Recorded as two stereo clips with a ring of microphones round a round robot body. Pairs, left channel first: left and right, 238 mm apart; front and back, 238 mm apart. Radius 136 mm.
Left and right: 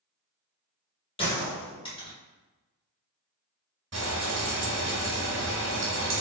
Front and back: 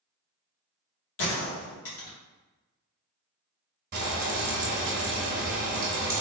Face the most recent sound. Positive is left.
turn(degrees=-130)